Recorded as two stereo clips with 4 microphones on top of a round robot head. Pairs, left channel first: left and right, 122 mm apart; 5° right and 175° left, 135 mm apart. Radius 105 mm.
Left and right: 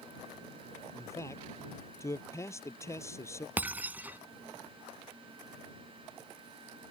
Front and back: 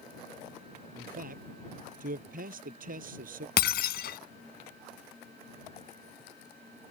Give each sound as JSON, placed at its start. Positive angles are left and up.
{"t": 0.9, "sound": "a man speaking", "azimuth_deg": 155}
{"t": 3.6, "sound": "breaking glass", "azimuth_deg": -10}